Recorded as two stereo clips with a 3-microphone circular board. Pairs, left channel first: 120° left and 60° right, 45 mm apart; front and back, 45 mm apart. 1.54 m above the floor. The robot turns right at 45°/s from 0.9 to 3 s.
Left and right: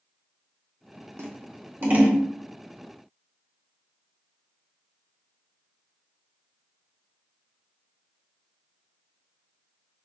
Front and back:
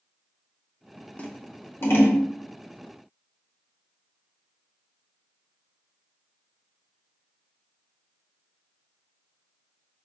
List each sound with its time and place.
1.2 s scissors: 50° right, 1.2 m; by 2.2 s straight ahead, 1.2 m